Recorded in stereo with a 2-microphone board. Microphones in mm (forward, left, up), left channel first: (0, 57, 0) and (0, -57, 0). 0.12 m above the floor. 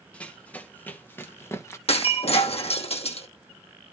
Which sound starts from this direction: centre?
Running footsteps, at 0.1 s.